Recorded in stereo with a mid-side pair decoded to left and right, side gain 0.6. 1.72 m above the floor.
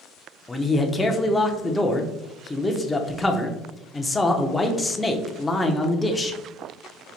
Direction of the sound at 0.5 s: 15° left.